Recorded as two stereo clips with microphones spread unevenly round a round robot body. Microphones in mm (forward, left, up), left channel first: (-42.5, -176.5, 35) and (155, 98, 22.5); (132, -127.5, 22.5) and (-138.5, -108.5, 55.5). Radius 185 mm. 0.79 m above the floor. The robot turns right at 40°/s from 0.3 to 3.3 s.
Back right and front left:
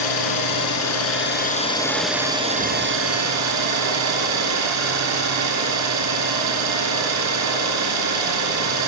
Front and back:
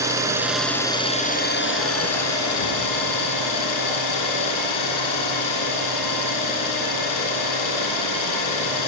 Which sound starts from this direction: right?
An engine running, at 0.0 s.